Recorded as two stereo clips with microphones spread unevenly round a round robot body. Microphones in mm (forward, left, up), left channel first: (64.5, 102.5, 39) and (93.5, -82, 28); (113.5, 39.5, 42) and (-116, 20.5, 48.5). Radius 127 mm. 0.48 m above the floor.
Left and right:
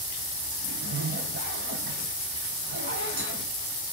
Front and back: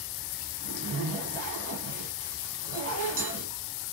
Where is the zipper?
110° right, 4 m.